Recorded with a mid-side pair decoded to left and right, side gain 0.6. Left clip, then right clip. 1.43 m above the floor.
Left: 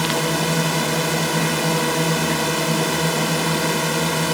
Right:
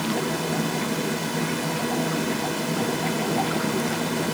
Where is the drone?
45° left.